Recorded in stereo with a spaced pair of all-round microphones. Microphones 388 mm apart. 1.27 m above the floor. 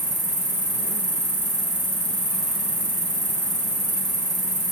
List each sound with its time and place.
0.0 s an insect: 75° right (ahead or behind), 3 m